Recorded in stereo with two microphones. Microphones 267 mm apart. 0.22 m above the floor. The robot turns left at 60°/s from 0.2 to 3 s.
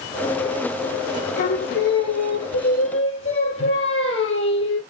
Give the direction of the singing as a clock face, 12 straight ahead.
7 o'clock.